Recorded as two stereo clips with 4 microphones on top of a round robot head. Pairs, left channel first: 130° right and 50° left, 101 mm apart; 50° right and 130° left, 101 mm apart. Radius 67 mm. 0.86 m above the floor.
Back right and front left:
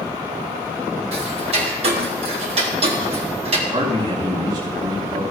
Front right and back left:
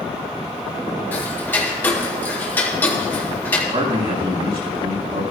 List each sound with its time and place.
1.1 s ticking: 20° left, 1.8 m
3.7 s a man speaking: 100° left, 5 m